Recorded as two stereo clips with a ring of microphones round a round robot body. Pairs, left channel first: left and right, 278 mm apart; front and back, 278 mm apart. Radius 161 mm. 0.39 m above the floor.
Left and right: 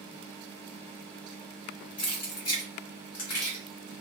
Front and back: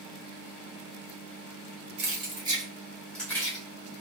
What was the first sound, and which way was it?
Keys jangling, 115° left.